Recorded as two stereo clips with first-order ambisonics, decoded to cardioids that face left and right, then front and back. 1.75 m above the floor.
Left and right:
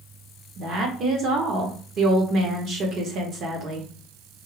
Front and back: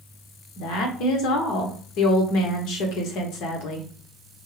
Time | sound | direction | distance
0.6 | a woman speaking | 35° right | 1.3 m